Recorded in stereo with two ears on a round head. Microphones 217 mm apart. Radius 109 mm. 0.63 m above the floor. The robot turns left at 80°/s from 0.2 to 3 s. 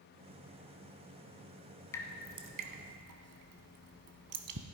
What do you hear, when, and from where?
1.9 s dripping: 15° left (ahead or behind), 1.2 m; by 4.7 s 70° right (ahead or behind), 1.2 m